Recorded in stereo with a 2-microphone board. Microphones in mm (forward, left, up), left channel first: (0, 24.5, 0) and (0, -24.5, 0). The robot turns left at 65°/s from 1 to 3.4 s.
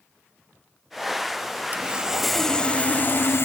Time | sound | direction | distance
1.7 | sawing | 145° right | 0.6 m